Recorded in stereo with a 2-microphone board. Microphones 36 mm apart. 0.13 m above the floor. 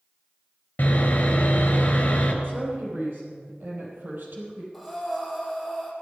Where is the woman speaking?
70° right (ahead or behind), 5 m.